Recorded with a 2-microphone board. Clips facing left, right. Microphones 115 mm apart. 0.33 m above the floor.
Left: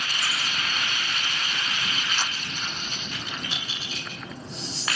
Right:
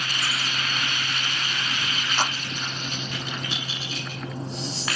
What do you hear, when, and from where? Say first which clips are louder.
2.2 s a clap: right 6 dB; 45° right (ahead or behind)